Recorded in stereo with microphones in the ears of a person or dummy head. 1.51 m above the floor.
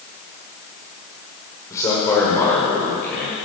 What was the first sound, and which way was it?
A man speaking, 15° left (ahead or behind).